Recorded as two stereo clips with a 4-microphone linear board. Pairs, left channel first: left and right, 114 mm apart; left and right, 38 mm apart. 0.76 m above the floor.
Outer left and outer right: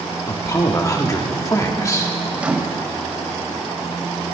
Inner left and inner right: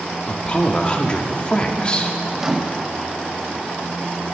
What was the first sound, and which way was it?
A man speaking, 30° left (ahead or behind).